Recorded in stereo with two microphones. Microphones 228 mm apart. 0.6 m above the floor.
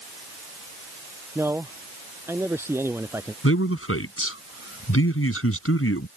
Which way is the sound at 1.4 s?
10° right (ahead or behind).